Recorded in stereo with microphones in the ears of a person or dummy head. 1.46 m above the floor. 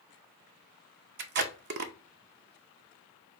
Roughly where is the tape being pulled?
Right.